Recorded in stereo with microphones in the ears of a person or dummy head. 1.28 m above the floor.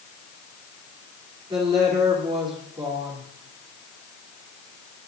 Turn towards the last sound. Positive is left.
turn(degrees=-30)  # may be behind; listen again after turning